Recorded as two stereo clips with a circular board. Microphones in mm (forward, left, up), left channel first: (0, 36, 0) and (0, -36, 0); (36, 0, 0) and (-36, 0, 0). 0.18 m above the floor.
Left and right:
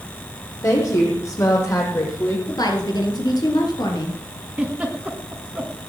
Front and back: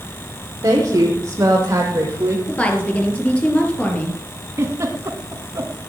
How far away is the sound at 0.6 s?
About 7 m.